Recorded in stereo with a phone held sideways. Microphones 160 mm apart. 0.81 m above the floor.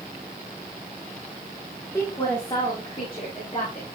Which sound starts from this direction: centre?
A woman speaking, at 1.9 s.